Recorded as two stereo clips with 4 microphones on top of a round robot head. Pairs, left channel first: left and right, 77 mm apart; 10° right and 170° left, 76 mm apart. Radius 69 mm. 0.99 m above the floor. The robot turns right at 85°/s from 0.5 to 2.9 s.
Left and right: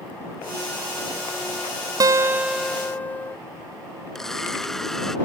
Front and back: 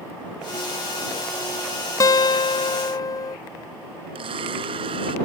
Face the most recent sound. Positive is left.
turn(degrees=175)